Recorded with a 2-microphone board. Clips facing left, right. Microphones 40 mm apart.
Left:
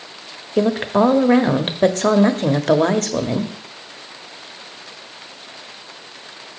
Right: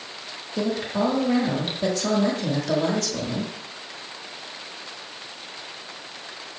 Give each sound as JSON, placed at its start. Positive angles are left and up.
{"t": 0.6, "sound": "a woman speaking", "side_deg": 50, "distance_m": 1.0}